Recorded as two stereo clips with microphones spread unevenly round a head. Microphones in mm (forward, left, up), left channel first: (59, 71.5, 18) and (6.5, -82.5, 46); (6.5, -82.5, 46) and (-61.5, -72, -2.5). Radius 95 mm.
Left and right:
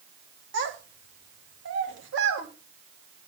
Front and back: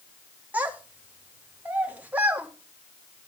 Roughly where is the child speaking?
Right.